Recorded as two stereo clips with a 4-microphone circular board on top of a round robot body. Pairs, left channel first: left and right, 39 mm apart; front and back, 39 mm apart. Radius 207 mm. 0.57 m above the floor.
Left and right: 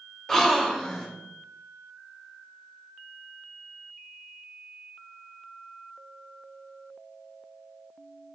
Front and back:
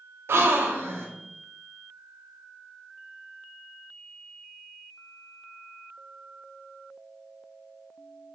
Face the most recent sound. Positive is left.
turn(degrees=170)